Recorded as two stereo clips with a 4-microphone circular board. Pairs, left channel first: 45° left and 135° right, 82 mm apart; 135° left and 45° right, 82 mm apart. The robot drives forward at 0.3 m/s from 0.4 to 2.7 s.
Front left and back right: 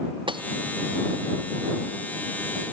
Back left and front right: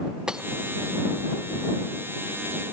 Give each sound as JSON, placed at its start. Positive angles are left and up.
{"t": 0.3, "sound": "breaking glass", "azimuth_deg": -125}